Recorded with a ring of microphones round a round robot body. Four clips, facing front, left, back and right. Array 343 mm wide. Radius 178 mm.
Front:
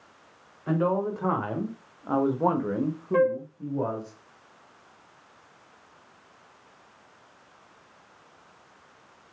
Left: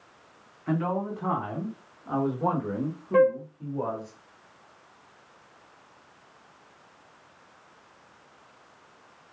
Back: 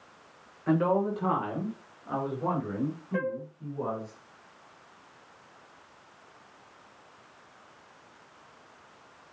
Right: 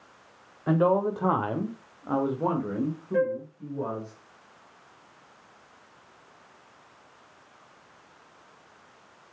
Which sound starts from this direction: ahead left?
A flute, at 3.1 s.